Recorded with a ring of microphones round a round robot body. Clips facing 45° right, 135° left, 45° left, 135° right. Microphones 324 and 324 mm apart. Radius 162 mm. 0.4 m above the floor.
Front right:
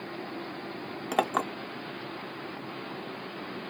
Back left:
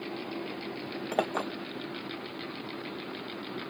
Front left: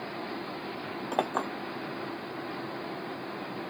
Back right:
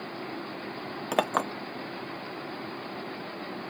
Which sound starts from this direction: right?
A clink, at 1.1 s.